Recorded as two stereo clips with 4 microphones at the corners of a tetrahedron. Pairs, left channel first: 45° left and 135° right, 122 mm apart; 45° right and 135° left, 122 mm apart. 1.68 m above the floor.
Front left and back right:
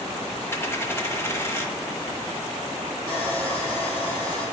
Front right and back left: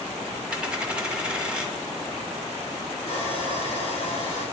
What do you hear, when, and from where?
0.5 s a dropped coin: 65° left, 1.1 m
3.1 s sawing: 85° right, 4 m